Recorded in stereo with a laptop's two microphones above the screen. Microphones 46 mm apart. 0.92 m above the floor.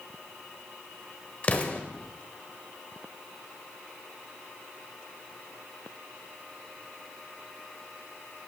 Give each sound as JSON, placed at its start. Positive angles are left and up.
{"t": 1.4, "sound": "an explosion", "side_deg": 35, "distance_m": 0.9}